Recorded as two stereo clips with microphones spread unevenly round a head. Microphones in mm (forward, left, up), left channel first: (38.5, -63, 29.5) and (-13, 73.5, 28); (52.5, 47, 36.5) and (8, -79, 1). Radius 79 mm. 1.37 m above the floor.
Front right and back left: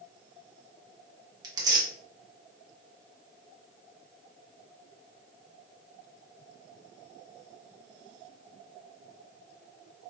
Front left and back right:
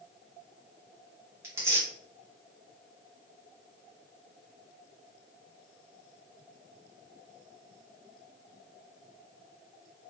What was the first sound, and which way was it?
Tearing paper, straight behind.